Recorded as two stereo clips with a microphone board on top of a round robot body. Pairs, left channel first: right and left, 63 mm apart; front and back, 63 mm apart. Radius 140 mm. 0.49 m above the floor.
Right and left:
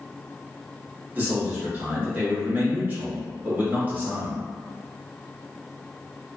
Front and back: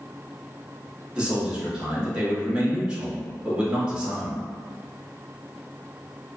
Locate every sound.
1.1 s a man speaking: 115° left, 1.5 m